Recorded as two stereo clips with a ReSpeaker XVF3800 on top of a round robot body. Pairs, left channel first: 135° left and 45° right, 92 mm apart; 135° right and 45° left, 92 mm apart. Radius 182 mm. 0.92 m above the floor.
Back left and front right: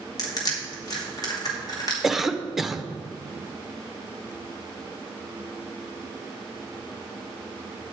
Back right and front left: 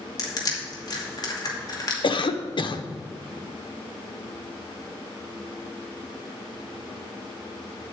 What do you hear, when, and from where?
0.2 s crushing: straight behind, 2.5 m
2.0 s a cough: 135° right, 1.0 m